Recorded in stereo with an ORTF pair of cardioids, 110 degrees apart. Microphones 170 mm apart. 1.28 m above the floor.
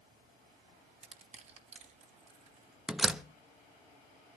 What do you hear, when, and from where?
0.0 s a fan: 55° right, 7 m
1.0 s crushing: 40° right, 2.5 m
2.9 s a door slam: 5° right, 1.1 m